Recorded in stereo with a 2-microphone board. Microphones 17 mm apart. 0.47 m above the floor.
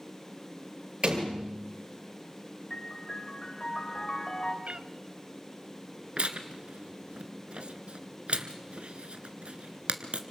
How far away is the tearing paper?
About 1.5 m.